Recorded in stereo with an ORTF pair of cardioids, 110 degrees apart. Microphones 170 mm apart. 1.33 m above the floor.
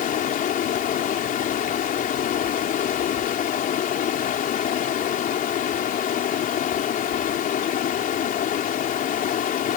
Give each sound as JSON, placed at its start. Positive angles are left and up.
{"t": 0.0, "sound": "running water", "azimuth_deg": 55}